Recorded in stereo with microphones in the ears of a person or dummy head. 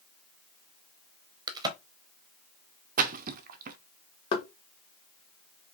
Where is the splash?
45° right (ahead or behind), 0.6 m.